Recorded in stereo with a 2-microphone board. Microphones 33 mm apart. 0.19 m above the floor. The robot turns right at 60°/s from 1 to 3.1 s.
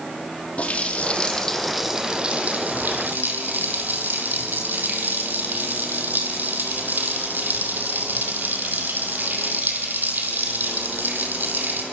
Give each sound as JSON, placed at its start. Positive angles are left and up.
{"t": 0.6, "sound": "a running tap", "azimuth_deg": 140, "distance_m": 4.5}